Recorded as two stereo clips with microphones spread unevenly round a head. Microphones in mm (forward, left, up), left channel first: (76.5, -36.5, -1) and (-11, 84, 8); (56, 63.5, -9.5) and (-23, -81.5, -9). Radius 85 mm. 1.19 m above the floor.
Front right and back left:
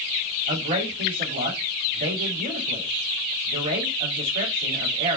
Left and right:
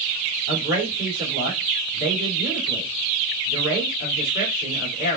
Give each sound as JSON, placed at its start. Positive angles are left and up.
{"t": 0.5, "sound": "a man speaking", "azimuth_deg": 95, "distance_m": 2.5}